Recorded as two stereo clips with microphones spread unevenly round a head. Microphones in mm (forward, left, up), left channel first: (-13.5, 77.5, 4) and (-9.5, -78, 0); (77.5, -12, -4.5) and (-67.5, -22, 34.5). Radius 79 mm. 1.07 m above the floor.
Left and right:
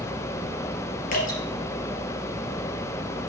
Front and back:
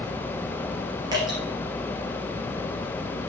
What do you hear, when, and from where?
1.1 s dripping: 125° left, 3 m